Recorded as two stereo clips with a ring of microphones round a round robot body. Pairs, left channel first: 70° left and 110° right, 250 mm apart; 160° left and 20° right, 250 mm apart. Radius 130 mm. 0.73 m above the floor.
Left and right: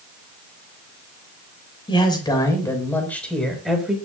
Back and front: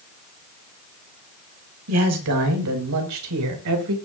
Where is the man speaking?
5° right, 5.5 m; by 4.0 s 25° right, 4.5 m.